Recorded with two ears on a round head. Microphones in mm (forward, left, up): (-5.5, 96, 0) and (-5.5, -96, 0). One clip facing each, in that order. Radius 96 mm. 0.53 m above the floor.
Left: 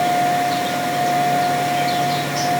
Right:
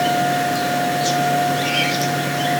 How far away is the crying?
I don't hear crying.